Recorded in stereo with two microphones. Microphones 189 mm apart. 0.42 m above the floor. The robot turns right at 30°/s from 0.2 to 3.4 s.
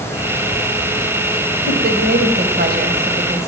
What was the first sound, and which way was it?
A woman speaking, 55° right (ahead or behind).